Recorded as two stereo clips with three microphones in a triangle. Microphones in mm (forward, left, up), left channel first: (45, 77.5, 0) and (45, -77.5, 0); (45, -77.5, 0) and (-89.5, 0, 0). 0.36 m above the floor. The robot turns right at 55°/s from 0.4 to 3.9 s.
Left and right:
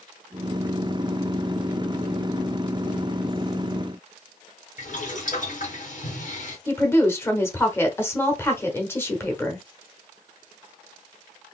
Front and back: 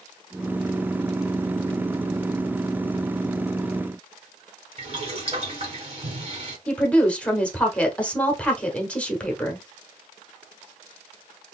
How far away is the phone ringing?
I don't hear a phone ringing.